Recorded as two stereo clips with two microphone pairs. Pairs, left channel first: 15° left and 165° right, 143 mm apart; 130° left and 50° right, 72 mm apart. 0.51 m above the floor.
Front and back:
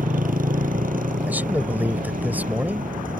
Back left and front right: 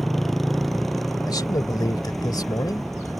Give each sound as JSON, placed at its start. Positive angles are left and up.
{"t": 0.0, "sound": "a motorcycle", "azimuth_deg": -145}
{"t": 1.3, "sound": "a man speaking", "azimuth_deg": 120}